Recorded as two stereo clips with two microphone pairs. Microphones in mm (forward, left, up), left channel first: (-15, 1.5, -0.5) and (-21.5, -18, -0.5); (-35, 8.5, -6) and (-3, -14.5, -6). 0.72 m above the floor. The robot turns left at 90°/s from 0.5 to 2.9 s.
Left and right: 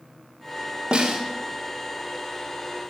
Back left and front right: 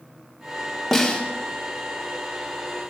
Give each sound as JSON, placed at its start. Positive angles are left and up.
{"t": 0.9, "sound": "a snare drum", "azimuth_deg": -130, "distance_m": 1.7}